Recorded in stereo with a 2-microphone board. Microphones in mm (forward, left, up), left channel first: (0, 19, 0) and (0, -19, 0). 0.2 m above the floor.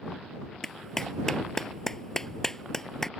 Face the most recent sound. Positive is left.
turn(degrees=15)  # may be behind; listen again after turning